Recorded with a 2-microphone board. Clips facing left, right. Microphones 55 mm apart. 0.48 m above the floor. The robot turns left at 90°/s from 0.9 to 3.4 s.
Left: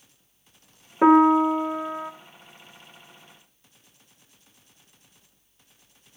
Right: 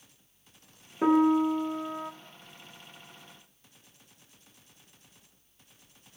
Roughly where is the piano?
Left.